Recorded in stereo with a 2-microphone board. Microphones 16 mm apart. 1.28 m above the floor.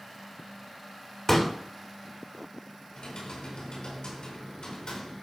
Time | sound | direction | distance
1.3 | a pop | 20° left (ahead or behind) | 2.5 m
2.9 | typing on a keyboard | 80° left | 5 m